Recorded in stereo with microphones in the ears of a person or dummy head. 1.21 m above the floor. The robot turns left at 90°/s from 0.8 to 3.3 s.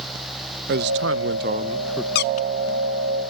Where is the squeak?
70° left (ahead or behind); by 2.5 s 40° left (ahead or behind).